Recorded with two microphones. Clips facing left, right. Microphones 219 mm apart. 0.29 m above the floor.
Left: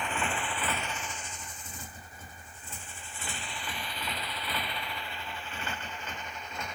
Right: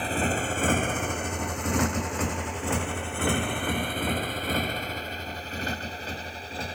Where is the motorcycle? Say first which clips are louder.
Right 7 dB; 35° right (ahead or behind); by 6.8 s 30° right (ahead or behind).